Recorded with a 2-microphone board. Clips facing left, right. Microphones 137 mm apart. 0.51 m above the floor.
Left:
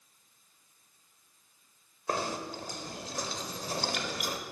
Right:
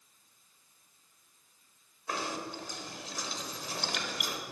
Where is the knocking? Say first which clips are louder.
Left 3 dB; 40° left (ahead or behind), 1.2 m.